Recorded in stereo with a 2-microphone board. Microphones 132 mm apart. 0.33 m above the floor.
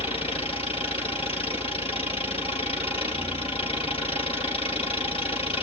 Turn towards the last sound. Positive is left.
turn(degrees=45)  # may be behind; listen again after turning